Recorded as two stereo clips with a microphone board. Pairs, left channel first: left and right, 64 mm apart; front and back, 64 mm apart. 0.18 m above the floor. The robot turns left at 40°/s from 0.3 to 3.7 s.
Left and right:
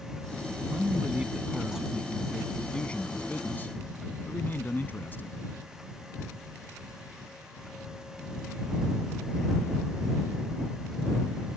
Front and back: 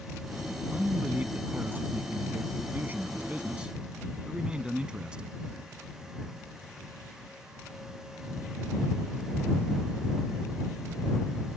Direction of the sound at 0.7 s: 125° right.